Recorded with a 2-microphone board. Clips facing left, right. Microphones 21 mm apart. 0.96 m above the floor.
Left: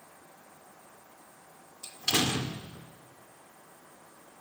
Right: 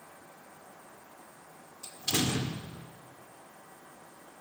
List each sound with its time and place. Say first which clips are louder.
1.8 s a door slam: left 3 dB; 30° left (ahead or behind), 2 m